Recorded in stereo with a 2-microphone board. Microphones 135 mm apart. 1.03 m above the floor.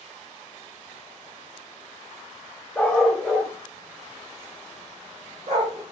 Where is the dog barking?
10° left (ahead or behind), 1.0 m; by 5.8 s 50° right (ahead or behind), 1.4 m.